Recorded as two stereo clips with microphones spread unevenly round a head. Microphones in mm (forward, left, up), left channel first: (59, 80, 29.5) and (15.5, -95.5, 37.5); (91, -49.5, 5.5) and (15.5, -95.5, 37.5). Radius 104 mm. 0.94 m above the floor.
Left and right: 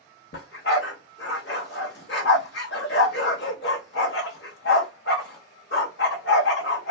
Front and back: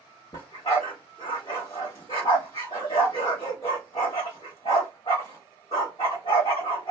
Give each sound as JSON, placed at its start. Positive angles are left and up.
{"t": 0.3, "sound": "a dog barking", "azimuth_deg": 100, "distance_m": 0.9}